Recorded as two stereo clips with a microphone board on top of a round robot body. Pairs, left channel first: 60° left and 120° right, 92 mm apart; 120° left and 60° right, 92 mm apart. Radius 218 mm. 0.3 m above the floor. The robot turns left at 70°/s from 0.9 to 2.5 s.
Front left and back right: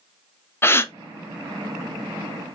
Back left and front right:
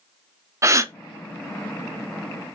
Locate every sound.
0.6 s a gasp: 5° right, 0.6 m